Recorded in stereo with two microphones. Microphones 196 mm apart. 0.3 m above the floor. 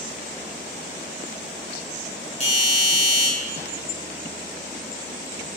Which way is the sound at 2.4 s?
35° left (ahead or behind).